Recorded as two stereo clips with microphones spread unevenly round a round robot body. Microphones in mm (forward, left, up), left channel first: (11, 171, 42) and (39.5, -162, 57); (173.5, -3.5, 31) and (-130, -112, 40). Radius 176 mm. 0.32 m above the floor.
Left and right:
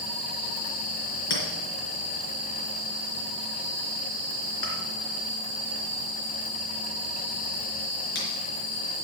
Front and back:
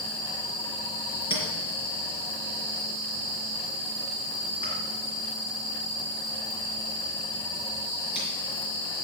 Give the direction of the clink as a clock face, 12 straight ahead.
9 o'clock.